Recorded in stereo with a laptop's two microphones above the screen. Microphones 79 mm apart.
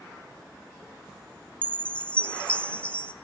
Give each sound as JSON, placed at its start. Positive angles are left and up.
{"t": 1.6, "sound": "a chime", "side_deg": 15, "distance_m": 0.7}